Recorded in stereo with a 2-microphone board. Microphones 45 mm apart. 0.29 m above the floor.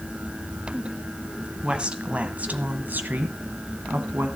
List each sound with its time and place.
1.6 s a woman speaking: 25° right (ahead or behind), 1.6 m; by 4.3 s 65° right (ahead or behind), 1.9 m